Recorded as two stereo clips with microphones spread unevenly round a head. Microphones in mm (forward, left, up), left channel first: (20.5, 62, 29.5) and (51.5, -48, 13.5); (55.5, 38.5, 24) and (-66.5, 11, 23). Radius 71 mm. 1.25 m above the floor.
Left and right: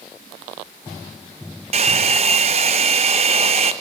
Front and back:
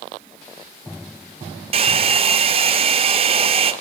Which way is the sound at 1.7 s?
120° right.